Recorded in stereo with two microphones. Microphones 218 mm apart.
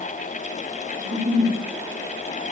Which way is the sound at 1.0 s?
40° right (ahead or behind).